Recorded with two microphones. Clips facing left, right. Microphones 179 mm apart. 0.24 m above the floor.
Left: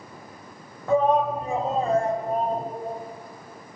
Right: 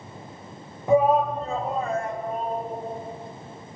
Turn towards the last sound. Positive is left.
turn(degrees=55)  # may be behind; listen again after turning